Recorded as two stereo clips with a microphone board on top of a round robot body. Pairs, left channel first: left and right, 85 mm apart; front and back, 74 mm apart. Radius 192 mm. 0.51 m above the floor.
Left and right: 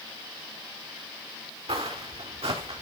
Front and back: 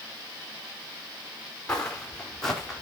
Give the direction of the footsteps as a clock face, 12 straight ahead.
3 o'clock.